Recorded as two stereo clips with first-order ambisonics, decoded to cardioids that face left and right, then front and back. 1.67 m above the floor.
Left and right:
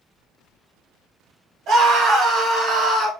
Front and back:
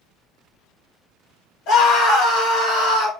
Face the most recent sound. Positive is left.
turn(degrees=-15)